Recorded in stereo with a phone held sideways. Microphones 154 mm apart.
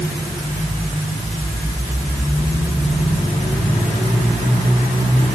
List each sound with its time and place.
Only background noise.